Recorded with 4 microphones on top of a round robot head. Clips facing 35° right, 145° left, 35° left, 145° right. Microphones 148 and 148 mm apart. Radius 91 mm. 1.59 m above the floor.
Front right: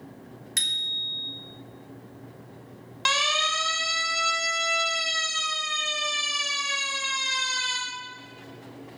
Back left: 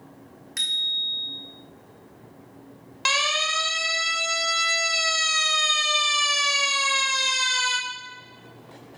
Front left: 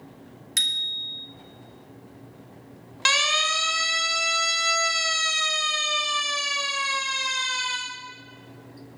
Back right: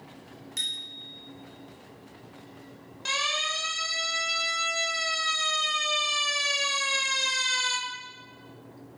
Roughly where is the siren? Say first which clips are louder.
Even, front left 6 dB; ahead left.